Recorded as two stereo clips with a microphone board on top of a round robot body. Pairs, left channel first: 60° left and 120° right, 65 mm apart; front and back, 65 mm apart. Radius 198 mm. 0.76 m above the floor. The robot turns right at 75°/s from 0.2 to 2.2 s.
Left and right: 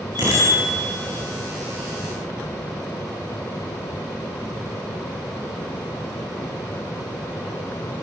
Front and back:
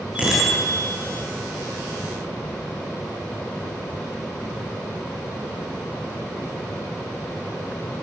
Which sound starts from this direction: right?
A bicycle bell, at 0.1 s.